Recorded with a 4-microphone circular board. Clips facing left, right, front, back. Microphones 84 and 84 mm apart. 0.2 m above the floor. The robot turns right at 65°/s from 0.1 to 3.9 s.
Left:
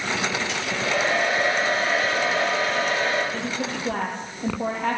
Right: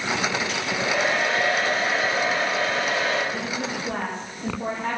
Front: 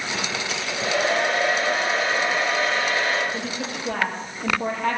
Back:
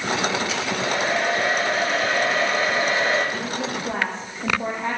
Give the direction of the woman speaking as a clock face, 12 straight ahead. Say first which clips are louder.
Even, back 3 dB; 9 o'clock.